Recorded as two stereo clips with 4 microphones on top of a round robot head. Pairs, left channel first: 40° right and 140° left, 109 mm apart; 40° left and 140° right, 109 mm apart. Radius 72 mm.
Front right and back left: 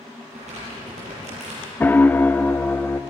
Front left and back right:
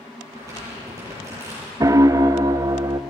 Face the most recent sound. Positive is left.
turn(degrees=-105)